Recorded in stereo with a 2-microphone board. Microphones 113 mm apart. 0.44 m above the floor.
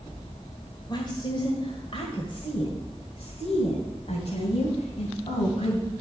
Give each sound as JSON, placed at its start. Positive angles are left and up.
{"t": 0.9, "sound": "a woman speaking", "side_deg": 50, "distance_m": 1.6}